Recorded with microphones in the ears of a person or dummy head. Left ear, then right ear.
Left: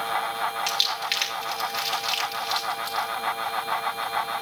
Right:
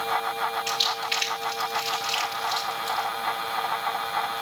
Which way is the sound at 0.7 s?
55° left (ahead or behind).